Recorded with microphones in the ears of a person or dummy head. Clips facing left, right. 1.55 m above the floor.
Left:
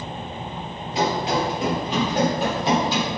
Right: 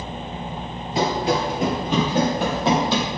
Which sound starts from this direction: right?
Running footsteps, at 0.9 s.